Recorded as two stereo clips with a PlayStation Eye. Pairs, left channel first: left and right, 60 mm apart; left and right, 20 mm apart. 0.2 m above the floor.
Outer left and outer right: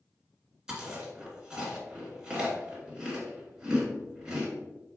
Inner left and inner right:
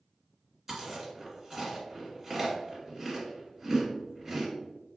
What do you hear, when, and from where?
0.7 s chewing: 10° right (ahead or behind), 1.4 m